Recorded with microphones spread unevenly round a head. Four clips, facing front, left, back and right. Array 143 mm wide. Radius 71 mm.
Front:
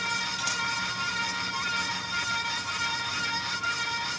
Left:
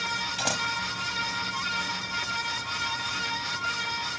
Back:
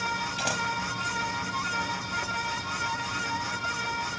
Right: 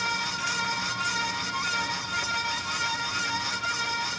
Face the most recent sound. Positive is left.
turn(degrees=130)